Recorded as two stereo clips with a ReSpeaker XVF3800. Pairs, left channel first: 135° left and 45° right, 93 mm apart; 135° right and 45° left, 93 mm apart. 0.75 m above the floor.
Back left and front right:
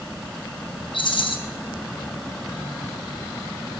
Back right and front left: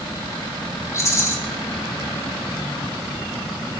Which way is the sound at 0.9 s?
165° left.